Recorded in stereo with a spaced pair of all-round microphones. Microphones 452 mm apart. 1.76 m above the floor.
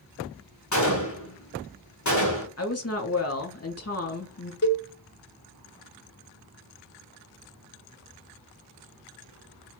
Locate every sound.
0.7 s a gunshot: 40° left (ahead or behind), 1.1 m
2.6 s a woman speaking: 35° left (ahead or behind), 0.7 m
4.6 s a cowbell: 40° left (ahead or behind), 0.7 m